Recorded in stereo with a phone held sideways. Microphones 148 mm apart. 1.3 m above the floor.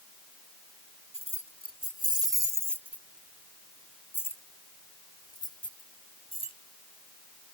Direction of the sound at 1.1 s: 50° right (ahead or behind).